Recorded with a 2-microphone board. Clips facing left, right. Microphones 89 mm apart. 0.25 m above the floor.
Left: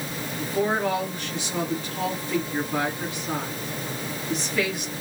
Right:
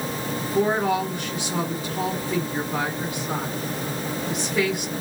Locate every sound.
0.4 s a woman speaking: 15° right (ahead or behind), 2.5 m